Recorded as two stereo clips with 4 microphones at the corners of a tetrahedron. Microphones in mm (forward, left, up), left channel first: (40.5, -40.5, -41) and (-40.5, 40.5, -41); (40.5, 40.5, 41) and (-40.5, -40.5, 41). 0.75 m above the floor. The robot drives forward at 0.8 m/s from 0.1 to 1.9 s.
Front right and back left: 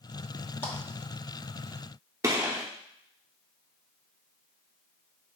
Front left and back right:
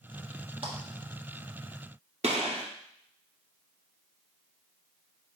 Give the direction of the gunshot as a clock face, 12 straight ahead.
5 o'clock.